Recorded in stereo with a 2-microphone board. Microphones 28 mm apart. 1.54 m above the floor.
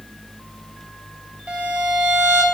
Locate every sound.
1.5 s a violin: 45° right (ahead or behind), 1.4 m